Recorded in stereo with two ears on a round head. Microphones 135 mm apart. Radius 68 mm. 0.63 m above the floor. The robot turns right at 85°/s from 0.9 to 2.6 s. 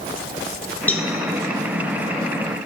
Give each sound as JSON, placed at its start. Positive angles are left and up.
{"t": 0.9, "sound": "a cowbell", "side_deg": 10, "distance_m": 1.3}